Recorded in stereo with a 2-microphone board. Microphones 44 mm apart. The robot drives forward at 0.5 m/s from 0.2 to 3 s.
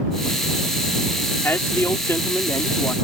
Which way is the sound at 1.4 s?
55° left (ahead or behind).